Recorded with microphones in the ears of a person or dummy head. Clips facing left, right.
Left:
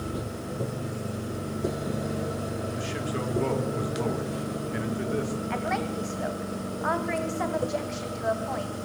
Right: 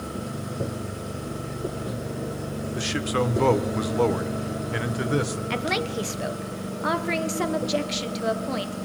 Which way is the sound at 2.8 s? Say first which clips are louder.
Right 5 dB; 80° right.